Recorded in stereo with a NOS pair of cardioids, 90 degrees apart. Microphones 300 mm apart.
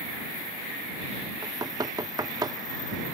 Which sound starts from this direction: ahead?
Knocking, at 1.4 s.